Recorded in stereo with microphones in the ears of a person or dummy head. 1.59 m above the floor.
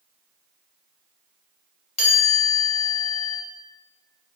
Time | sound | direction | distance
2.0 | a chime | 40° left (ahead or behind) | 0.7 m